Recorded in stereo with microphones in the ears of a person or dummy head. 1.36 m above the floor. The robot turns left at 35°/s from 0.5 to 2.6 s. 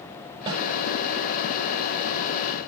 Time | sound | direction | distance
0.5 | a snare drum | 25° right (ahead or behind) | 9.5 m